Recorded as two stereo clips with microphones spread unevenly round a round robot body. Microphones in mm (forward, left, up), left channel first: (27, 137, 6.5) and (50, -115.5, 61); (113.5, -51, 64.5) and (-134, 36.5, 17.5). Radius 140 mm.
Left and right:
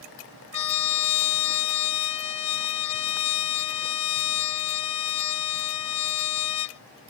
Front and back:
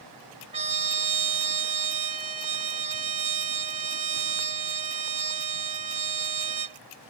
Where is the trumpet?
95° left.